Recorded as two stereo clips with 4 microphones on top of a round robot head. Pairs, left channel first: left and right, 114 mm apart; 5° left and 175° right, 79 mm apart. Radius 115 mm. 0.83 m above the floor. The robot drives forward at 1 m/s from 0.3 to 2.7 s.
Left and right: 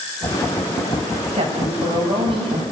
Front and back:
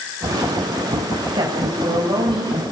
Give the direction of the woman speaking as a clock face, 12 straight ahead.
4 o'clock.